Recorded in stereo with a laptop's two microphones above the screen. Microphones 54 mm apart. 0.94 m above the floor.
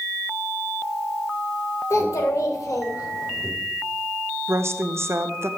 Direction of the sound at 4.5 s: 55° right (ahead or behind).